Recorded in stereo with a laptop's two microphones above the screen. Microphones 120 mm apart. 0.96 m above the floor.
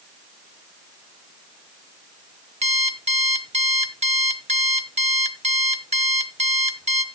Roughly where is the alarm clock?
Right.